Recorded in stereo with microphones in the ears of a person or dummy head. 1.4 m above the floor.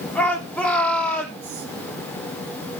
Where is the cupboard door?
No cupboard door in this recording.